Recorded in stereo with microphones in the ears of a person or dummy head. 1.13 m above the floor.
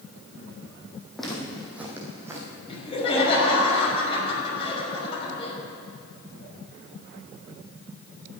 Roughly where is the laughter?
Left.